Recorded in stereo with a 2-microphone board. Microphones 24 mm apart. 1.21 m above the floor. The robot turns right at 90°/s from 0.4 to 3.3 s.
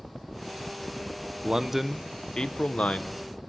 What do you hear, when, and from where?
1.4 s a man speaking: 45° right, 0.9 m; by 3.1 s 105° left, 0.9 m